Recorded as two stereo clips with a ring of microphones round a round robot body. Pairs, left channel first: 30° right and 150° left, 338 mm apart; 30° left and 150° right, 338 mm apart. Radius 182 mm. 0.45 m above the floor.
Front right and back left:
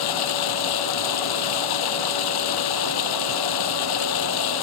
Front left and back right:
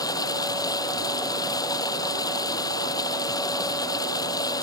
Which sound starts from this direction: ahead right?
Running water, at 0.0 s.